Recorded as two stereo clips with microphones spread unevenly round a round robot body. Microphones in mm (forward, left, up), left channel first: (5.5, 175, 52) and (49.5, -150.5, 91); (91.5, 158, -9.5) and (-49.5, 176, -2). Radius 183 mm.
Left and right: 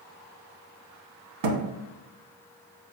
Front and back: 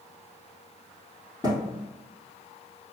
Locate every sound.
1.4 s a thud: 85° right, 0.7 m